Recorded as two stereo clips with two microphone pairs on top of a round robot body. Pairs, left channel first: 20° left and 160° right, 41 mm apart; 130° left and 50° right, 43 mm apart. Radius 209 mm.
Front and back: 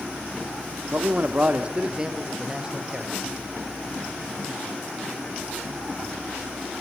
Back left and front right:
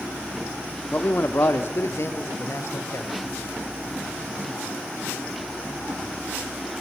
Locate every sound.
0.9 s a man speaking: 170° left, 1.9 m; by 3.1 s 120° left, 4 m